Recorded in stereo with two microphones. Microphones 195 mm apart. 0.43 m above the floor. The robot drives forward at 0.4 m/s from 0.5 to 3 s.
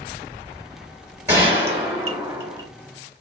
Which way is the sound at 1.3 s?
15° right (ahead or behind).